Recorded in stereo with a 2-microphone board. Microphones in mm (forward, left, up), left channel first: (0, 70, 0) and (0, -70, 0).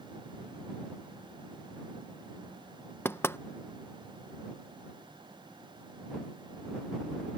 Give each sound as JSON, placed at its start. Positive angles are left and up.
{"t": 3.0, "sound": "knocking", "side_deg": 15}